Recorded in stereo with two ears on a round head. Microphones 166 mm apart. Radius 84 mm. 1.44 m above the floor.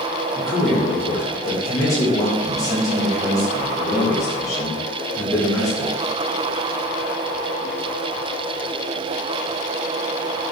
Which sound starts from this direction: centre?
A man speaking, at 0.3 s.